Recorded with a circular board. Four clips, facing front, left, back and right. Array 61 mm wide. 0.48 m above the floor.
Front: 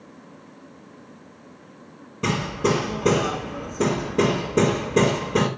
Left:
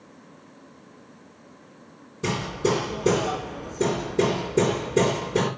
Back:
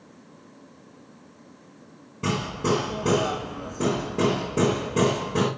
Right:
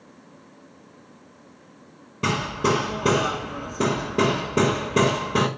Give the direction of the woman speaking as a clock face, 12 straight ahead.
No woman speaking in this recording.